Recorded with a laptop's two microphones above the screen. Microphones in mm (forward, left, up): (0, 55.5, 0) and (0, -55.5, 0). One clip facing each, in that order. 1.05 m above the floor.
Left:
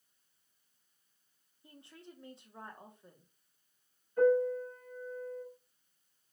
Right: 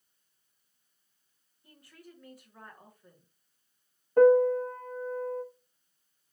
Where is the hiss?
No hiss in this recording.